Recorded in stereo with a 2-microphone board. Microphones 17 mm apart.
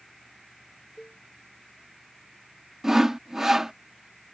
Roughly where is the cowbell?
Left.